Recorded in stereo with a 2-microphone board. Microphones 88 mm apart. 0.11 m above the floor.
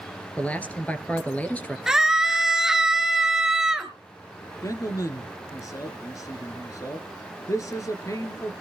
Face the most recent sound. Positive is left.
turn(degrees=40)  # may be behind; listen again after turning